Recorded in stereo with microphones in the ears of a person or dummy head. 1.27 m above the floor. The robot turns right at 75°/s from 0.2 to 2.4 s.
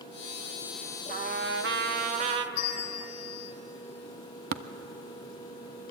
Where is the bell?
55° left (ahead or behind), 2 m.